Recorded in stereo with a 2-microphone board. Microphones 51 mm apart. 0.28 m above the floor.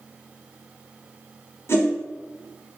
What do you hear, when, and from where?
1.7 s a whoosh: 55° left (ahead or behind), 2.5 m